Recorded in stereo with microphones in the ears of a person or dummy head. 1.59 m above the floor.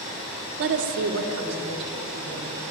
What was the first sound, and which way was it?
A woman speaking, 65° right (ahead or behind).